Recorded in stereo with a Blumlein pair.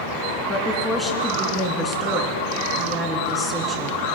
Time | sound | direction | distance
0.5 | a woman speaking | straight ahead | 3 m